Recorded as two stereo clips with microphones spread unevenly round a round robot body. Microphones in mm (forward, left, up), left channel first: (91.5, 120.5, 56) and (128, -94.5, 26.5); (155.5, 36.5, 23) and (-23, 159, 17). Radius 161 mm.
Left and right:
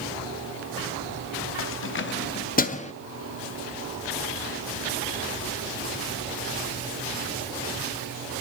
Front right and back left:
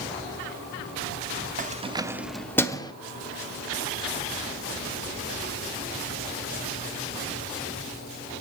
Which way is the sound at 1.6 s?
105° left.